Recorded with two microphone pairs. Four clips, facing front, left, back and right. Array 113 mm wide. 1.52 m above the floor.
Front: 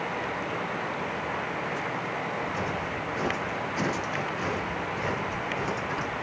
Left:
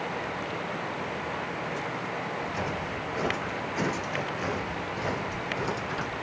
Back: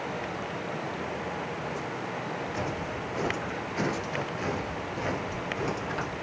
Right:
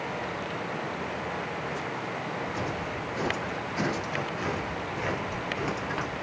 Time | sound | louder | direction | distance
2.4 | footsteps | even, front 2 dB | 100° left | 1.9 m